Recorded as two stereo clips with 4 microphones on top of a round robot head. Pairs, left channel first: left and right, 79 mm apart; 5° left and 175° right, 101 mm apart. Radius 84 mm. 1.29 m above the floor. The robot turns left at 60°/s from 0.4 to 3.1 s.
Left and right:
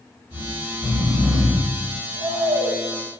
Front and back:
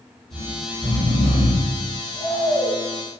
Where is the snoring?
30° left, 1.4 m; by 2.8 s 110° right, 1.4 m.